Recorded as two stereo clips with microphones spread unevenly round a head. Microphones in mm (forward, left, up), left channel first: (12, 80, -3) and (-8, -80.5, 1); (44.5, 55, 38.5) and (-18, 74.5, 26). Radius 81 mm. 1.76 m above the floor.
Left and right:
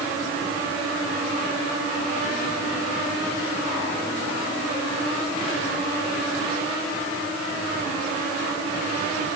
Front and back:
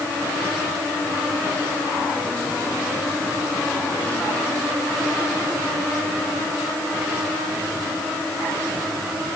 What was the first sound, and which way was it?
Only background noise.